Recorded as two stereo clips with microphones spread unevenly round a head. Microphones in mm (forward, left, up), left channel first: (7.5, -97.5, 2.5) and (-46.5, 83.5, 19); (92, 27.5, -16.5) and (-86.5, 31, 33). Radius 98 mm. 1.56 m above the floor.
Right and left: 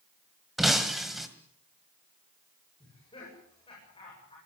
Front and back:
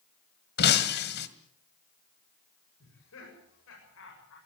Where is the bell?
I don't hear a bell.